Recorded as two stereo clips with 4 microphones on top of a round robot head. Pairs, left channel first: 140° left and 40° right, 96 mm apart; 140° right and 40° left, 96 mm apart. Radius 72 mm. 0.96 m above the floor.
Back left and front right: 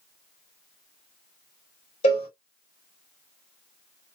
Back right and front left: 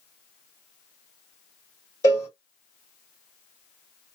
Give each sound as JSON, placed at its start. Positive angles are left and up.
{"t": 2.0, "sound": "a cowbell", "azimuth_deg": 160, "distance_m": 1.5}